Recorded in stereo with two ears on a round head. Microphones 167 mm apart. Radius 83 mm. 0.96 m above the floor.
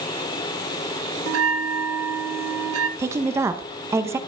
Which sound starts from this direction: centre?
A woman speaking, at 3.0 s.